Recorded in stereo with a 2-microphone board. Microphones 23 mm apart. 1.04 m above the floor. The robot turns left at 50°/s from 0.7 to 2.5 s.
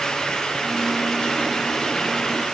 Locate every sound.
Only background noise.